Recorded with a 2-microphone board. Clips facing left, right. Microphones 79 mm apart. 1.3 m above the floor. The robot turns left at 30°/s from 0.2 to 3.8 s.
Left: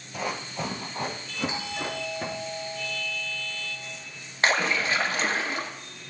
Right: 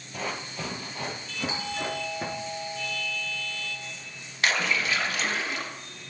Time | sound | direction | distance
0.1 | running footsteps | centre (ahead or behind) | 1.3 m
1.5 | a doorbell | 175° right | 3 m
4.4 | a splash | 35° left (ahead or behind) | 0.8 m